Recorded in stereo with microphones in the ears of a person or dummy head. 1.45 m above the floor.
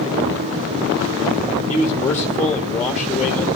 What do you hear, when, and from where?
1.7 s a man speaking: 15° left (ahead or behind), 2 m